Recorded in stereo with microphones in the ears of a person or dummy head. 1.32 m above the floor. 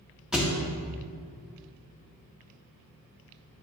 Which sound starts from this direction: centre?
A thud, at 0.3 s.